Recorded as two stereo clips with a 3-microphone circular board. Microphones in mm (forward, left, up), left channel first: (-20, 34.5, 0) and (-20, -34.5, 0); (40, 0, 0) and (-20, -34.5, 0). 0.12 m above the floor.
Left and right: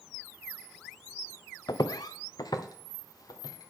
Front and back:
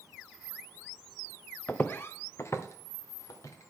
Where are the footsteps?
95° left, 0.5 m; by 3.7 s 70° left, 1.8 m.